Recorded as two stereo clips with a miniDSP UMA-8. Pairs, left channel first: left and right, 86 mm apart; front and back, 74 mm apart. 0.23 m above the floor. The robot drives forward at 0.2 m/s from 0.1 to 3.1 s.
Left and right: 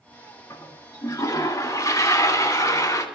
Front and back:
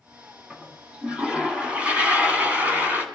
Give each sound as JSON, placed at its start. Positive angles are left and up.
{"t": 0.5, "sound": "a toilet flushing", "azimuth_deg": 105, "distance_m": 1.9}